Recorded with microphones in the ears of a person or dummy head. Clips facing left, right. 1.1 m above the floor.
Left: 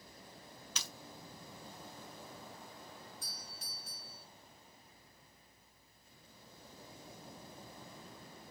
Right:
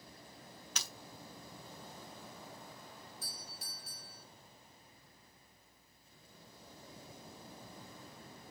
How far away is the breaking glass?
About 2 m.